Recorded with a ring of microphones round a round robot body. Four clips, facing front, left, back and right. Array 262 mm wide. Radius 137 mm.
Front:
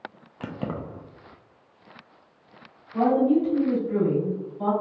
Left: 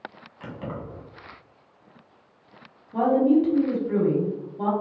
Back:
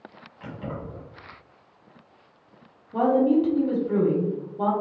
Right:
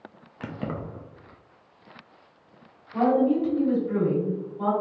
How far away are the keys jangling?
About 0.5 m.